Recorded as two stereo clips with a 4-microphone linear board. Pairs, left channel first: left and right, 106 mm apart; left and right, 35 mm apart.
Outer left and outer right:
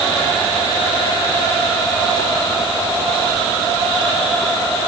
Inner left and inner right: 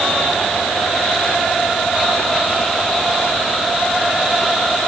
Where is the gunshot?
No gunshot in this recording.